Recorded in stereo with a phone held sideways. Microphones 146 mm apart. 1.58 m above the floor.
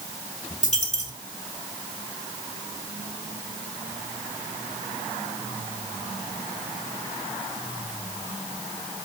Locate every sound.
0.6 s a dropped coin: 55° left (ahead or behind), 3 m